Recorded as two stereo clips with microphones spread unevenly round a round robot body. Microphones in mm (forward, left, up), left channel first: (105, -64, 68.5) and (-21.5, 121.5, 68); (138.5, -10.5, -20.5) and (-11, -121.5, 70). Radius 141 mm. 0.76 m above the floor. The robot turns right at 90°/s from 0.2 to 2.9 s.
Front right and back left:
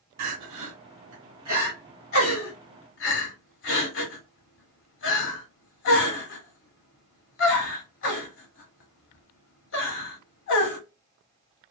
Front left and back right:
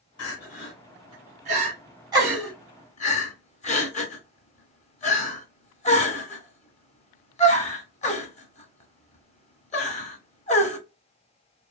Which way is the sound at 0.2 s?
85° left.